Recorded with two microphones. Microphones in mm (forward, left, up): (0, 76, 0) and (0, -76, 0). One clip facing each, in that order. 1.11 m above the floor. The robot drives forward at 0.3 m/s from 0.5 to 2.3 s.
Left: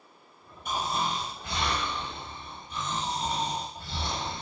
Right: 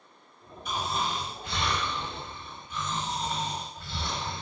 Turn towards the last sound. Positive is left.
turn(degrees=35)  # may be behind; listen again after turning